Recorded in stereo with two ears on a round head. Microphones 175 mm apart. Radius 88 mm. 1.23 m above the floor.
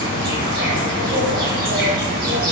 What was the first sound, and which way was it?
An insect, 45° right (ahead or behind).